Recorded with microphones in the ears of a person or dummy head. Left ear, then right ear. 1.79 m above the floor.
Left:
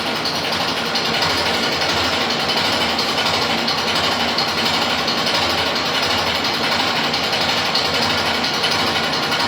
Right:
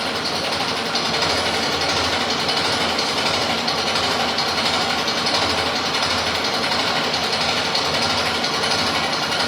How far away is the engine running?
About 7 m.